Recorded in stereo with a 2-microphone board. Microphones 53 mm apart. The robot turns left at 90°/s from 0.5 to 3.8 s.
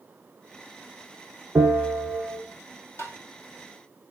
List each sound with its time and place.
1.6 s a bell: 125° right, 2.5 m; by 2.4 s 155° left, 2.5 m
3.0 s tapping: 65° left (ahead or behind), 1.9 m; by 3.2 s 80° left, 1.9 m